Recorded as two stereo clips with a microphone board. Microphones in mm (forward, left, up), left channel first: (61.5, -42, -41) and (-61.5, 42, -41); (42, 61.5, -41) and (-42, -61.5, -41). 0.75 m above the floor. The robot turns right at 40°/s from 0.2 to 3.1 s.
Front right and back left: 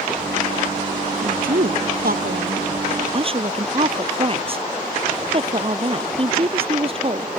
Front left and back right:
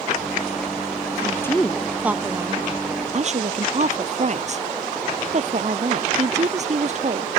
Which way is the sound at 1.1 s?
120° left.